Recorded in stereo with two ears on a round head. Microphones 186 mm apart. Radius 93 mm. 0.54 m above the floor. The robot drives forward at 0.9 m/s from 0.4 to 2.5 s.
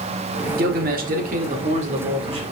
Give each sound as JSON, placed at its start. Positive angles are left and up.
{"t": 0.6, "sound": "a man speaking", "side_deg": -45, "distance_m": 1.4}